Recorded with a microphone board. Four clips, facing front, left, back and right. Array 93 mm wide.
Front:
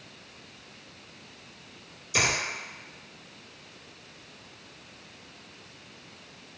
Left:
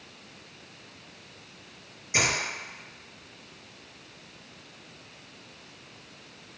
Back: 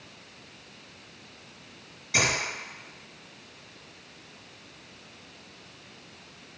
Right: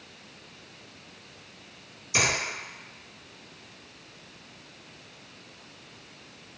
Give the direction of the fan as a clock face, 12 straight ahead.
I don't hear a fan.